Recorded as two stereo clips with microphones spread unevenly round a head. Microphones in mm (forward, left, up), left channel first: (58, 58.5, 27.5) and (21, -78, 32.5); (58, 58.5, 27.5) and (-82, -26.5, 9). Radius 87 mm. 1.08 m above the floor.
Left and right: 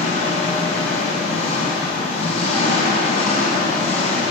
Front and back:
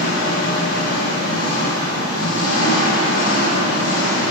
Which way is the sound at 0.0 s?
35° left.